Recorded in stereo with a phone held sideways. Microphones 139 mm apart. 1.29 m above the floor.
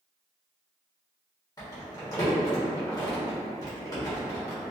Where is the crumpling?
25° left (ahead or behind), 1.0 m.